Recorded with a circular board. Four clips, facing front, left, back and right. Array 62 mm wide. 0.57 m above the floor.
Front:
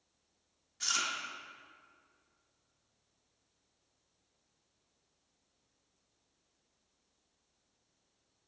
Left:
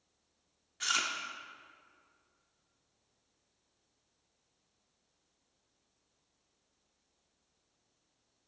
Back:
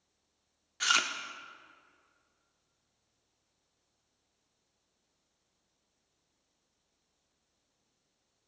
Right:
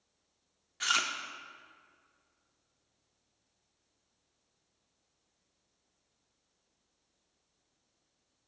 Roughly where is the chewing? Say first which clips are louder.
Right 3 dB, back 7 dB; behind.